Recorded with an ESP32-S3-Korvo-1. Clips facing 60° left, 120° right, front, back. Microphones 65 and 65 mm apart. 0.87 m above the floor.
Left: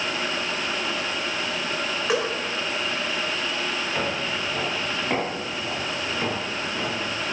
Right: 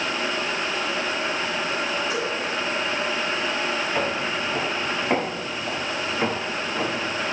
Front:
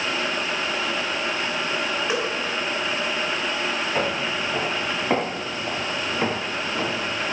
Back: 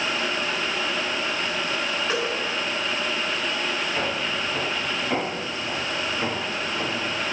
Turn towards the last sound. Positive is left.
turn(degrees=-60)